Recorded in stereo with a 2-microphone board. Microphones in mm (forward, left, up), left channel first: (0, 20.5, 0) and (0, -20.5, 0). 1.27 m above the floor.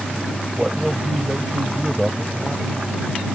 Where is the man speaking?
10° right (ahead or behind).